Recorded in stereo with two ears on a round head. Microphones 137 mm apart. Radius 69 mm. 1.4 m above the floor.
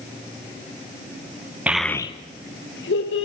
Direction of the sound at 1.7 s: 10° right (ahead or behind).